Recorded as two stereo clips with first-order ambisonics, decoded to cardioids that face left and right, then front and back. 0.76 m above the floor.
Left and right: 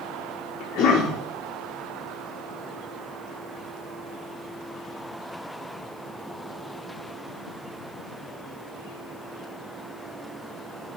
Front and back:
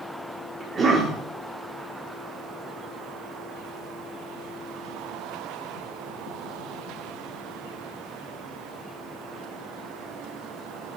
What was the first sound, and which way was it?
A cough, 115° left.